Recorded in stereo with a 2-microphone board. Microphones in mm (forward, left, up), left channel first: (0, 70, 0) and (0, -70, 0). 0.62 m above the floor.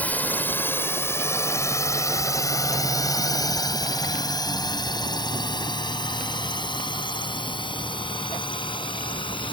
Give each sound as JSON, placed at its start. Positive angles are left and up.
{"t": 0.0, "sound": "a drone", "side_deg": 10}